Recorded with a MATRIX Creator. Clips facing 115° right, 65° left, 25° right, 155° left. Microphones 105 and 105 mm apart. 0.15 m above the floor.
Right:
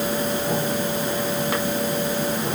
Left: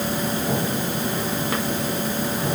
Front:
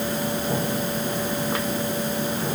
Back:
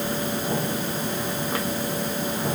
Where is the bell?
No bell in this recording.